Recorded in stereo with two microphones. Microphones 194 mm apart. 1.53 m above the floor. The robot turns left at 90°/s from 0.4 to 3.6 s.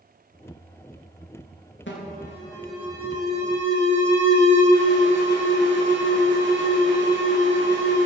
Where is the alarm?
75° left, 3.5 m; by 8.1 s 80° right, 3.5 m.